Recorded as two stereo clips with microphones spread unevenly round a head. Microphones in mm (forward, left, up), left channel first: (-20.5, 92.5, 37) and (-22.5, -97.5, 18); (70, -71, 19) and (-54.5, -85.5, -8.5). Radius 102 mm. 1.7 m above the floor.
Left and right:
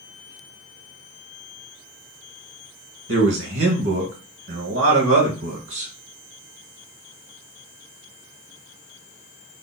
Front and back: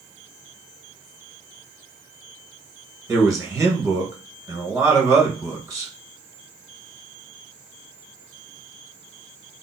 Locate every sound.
3.1 s a man speaking: 105° right, 1.7 m